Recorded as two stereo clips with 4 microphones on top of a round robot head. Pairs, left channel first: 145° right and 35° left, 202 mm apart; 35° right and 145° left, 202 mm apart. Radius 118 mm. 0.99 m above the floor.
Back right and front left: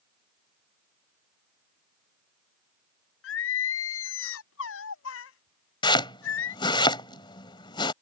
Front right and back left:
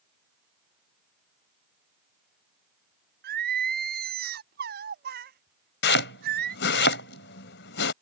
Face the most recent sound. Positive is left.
turn(degrees=-75)